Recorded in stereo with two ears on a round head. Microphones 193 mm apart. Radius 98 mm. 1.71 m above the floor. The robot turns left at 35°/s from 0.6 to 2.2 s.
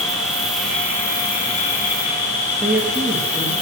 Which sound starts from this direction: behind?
An insect, at 0.0 s.